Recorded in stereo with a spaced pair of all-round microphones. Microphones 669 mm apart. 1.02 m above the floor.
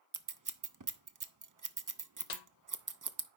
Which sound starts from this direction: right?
Scissors, at 0.1 s.